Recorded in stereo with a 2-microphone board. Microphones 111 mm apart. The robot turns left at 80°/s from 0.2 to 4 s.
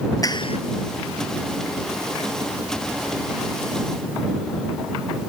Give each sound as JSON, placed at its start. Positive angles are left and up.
{"t": 0.2, "sound": "a clap", "side_deg": 30}